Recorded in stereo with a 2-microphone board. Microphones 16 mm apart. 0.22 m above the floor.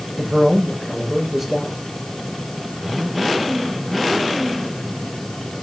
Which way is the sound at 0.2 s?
Centre (ahead or behind).